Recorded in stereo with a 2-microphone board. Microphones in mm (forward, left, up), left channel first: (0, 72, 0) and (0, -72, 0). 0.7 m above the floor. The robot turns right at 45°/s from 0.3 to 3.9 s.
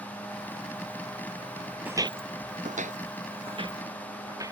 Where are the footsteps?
10° right (ahead or behind); by 4.5 s 25° right (ahead or behind).